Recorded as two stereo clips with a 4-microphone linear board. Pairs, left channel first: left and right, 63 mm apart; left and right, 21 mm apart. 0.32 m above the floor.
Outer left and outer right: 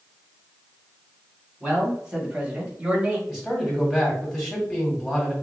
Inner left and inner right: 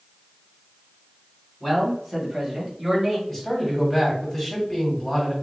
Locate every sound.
1.6 s a man speaking: 15° right (ahead or behind), 1.6 m; by 3.2 s 25° right (ahead or behind), 1.0 m
3.3 s a man speaking: 5° right (ahead or behind), 1.9 m